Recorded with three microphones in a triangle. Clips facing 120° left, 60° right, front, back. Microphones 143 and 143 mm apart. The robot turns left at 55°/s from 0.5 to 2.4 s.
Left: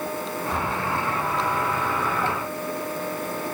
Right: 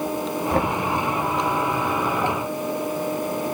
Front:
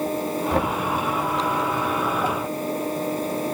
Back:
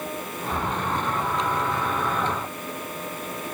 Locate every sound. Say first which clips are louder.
0.5 s knocking: right 7 dB, front 4 dB; 20° right, 1.6 m; by 0.8 s 35° right, 1.6 m